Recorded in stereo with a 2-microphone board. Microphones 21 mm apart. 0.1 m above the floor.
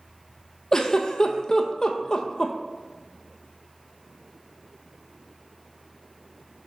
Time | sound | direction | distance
0.7 | a giggle | 35° left (ahead or behind) | 0.8 m